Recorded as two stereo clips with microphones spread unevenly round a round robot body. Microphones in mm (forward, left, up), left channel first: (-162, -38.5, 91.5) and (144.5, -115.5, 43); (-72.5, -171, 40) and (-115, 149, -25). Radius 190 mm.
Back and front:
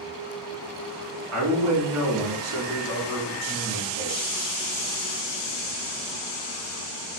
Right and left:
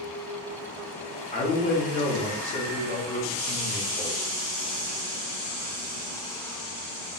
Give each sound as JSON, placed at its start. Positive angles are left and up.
{"t": 1.3, "sound": "a man speaking", "azimuth_deg": 0, "distance_m": 2.0}